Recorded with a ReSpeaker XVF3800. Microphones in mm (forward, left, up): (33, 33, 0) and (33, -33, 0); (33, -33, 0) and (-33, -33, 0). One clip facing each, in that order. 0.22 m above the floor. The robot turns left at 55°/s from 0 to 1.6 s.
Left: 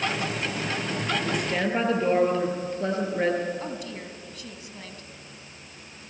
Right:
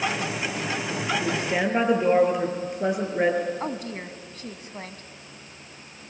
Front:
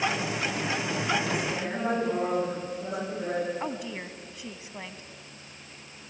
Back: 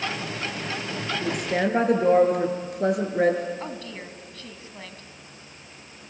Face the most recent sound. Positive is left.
turn(degrees=-70)